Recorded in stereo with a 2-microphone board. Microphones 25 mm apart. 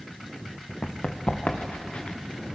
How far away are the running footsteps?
About 2.5 m.